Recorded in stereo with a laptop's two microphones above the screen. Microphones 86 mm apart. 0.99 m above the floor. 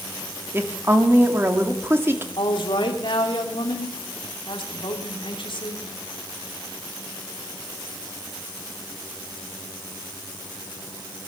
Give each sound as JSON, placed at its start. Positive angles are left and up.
{"t": 0.5, "sound": "a woman speaking", "side_deg": -30, "distance_m": 2.0}
{"t": 2.4, "sound": "a woman speaking", "side_deg": 75, "distance_m": 2.5}